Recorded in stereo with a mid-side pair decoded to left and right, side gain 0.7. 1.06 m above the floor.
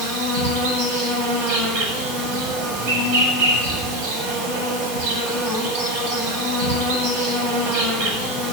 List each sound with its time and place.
0.0 s an insect: 70° right, 9 m